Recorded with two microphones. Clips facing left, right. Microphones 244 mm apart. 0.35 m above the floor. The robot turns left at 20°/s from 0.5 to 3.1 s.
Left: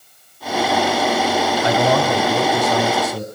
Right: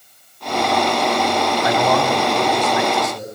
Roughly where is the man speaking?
Left.